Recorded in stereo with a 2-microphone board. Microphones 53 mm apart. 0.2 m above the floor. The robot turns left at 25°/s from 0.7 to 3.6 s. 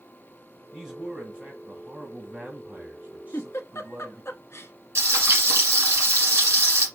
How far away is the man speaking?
About 1.6 m.